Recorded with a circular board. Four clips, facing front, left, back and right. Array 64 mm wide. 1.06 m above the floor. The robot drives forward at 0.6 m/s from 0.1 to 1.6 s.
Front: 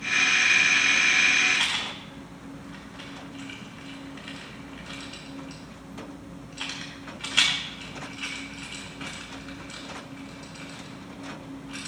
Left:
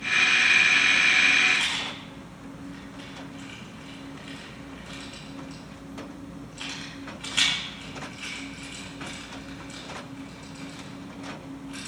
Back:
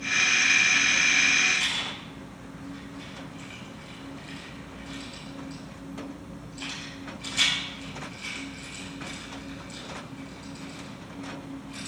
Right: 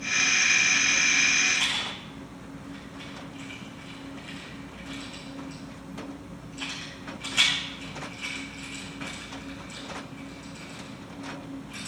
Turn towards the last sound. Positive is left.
turn(degrees=5)